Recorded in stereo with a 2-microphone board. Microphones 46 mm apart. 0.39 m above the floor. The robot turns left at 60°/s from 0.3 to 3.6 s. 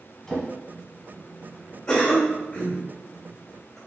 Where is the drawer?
10° left (ahead or behind), 1.2 m; by 0.5 s centre (ahead or behind), 1.2 m.